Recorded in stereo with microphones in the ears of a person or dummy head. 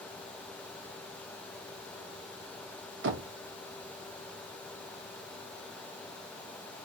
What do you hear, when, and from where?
3.0 s knocking: 55° right (ahead or behind), 0.6 m